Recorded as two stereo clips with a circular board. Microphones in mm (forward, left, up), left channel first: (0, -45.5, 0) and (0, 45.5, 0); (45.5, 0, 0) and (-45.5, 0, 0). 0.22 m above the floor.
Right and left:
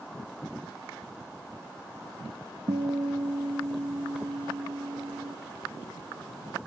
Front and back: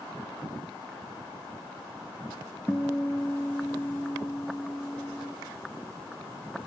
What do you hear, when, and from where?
2.7 s a guitar: 85° left, 0.9 m